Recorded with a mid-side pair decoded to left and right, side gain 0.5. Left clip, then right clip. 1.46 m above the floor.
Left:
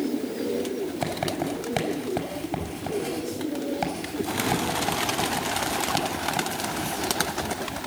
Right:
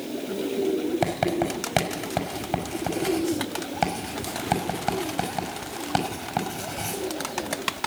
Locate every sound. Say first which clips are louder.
1.0 s writing: right 2 dB; 35° right, 6 m